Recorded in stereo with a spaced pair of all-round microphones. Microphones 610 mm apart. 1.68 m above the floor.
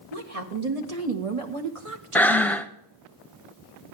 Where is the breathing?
5° left (ahead or behind), 0.6 m.